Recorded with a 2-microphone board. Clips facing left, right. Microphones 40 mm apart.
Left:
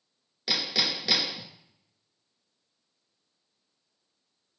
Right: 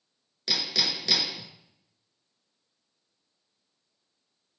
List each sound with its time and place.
0.5 s hammering: 10° left (ahead or behind), 0.8 m